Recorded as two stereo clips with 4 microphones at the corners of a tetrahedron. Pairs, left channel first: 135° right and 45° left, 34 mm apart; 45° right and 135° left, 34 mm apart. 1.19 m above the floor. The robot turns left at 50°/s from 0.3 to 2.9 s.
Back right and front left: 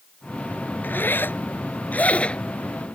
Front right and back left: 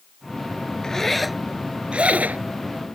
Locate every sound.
0.8 s a zipper: 115° right; by 2.5 s 165° left